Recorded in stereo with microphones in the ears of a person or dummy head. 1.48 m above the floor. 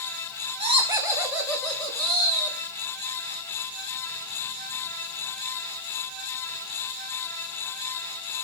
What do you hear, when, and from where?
0.6 s laughter: 30° right (ahead or behind), 1.8 m; by 2.6 s 10° left (ahead or behind), 3.5 m